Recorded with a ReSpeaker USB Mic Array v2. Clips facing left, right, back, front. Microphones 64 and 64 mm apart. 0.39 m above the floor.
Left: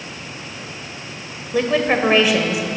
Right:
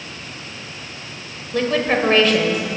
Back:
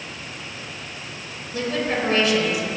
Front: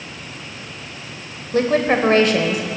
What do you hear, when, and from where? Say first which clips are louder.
1.5 s a woman speaking: left 1 dB, front 8 dB; 10° left, 1.2 m